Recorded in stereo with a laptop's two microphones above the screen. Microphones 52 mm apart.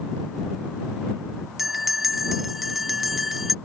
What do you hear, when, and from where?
1.6 s a bell: 5° right (ahead or behind)